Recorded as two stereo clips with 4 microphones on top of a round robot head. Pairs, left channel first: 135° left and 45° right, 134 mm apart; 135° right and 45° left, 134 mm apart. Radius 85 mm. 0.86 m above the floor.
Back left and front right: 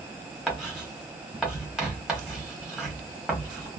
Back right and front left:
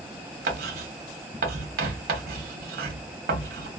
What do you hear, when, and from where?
0.5 s writing: 40° left, 1.1 m